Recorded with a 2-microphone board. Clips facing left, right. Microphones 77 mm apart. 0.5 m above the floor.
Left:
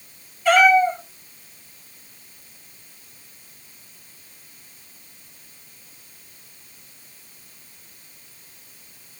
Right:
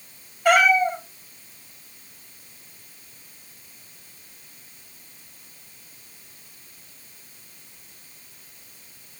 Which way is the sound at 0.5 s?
55° right (ahead or behind).